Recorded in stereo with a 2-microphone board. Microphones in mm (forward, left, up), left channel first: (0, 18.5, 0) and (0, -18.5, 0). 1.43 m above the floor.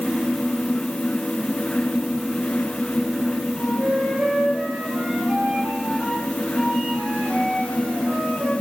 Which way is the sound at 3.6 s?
30° right (ahead or behind).